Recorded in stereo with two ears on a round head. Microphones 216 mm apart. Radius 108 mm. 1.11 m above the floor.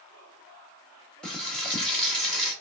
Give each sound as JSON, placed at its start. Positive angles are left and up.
{"t": 1.2, "sound": "frying", "side_deg": 0, "distance_m": 1.2}